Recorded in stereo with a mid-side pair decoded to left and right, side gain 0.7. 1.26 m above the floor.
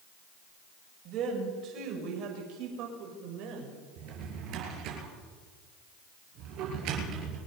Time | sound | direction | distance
1.1 | a woman speaking | 50° right | 6.5 m
4.0 | a drawer | 60° right | 5 m